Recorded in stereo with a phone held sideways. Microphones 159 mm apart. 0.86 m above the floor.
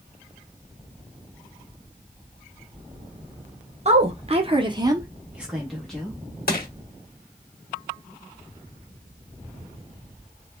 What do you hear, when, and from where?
3.9 s a woman speaking: 40° right (ahead or behind), 0.9 m; by 6.2 s 5° left (ahead or behind), 1.1 m
6.5 s crushing: 70° left (ahead or behind), 0.9 m